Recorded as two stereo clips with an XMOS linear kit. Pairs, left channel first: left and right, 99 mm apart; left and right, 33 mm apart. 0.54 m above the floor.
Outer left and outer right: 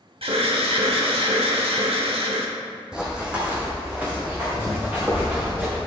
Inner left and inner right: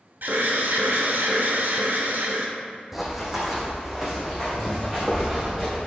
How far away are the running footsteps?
About 1.6 m.